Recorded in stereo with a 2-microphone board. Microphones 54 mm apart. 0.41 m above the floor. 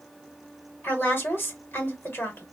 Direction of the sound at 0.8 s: 45° left (ahead or behind).